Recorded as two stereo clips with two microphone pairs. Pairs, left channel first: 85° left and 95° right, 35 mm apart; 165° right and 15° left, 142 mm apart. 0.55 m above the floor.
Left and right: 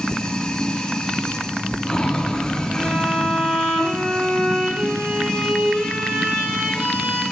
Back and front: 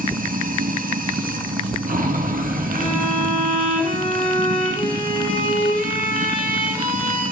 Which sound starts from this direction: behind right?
A violin, at 2.8 s.